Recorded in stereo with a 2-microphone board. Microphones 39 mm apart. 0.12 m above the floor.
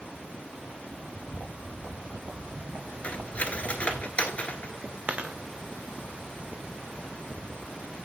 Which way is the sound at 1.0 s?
60° right (ahead or behind).